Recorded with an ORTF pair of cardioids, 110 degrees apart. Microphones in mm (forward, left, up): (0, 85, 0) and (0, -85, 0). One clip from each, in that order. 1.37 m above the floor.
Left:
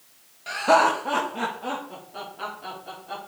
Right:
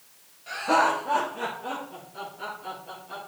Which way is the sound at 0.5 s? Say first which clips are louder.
Left 4 dB; 55° left.